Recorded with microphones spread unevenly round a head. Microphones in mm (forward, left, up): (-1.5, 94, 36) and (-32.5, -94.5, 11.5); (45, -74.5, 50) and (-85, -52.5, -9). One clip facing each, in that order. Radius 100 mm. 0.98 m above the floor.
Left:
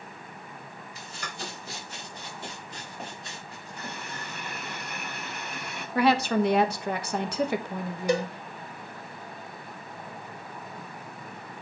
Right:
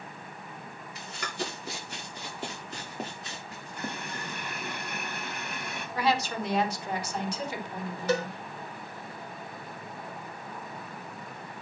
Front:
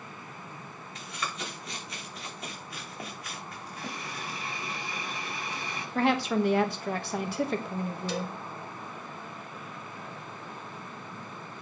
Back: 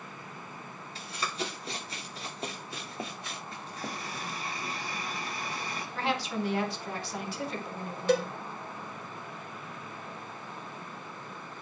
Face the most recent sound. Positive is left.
turn(degrees=160)